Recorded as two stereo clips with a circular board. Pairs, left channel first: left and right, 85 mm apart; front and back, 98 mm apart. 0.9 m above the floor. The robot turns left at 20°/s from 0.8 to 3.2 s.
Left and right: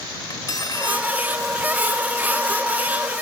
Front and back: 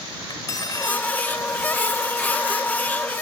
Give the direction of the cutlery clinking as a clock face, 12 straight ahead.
10 o'clock.